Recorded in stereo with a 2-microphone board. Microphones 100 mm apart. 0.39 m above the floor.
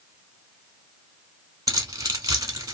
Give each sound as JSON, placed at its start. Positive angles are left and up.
{"t": 1.7, "sound": "keys jangling", "side_deg": -40, "distance_m": 1.2}